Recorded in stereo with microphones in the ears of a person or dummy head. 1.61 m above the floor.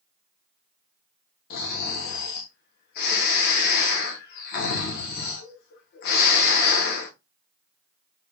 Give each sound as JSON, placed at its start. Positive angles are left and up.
{"t": 1.5, "sound": "snoring", "side_deg": 50, "distance_m": 0.9}